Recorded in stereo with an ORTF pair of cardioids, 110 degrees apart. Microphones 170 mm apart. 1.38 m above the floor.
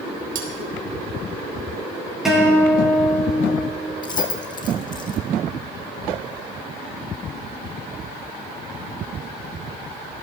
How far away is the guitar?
About 5 m.